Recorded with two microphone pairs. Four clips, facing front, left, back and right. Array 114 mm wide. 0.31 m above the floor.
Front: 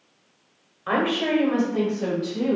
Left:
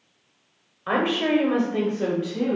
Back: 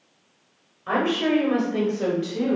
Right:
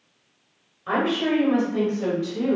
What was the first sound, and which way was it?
A woman speaking, 50° left.